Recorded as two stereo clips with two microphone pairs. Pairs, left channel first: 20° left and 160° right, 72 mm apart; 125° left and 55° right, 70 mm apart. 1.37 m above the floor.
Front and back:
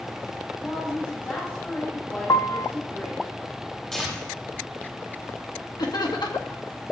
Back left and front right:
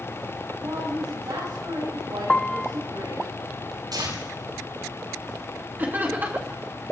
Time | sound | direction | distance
0.6 | a woman speaking | 40° right | 8 m
2.3 | a piano | 45° left | 0.5 m
3.9 | tearing paper | 65° right | 9.5 m
5.8 | laughter | 10° left | 2.5 m